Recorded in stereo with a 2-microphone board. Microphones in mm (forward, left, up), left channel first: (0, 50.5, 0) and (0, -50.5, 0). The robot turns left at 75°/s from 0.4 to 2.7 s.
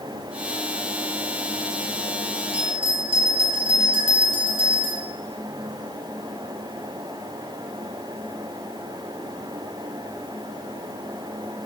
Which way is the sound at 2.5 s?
70° right (ahead or behind).